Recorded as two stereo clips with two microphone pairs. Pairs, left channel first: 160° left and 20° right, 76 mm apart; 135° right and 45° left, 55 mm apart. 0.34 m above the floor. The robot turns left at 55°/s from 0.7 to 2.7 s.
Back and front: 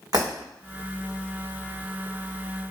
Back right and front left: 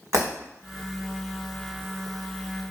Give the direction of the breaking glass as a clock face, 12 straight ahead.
11 o'clock.